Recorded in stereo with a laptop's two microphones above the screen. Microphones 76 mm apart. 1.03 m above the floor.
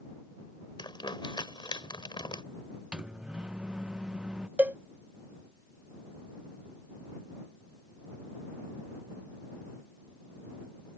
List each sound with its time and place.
0.8 s crumpling: 85° left
2.9 s a microwave: 10° right (ahead or behind)
4.6 s a cowbell: 20° right (ahead or behind)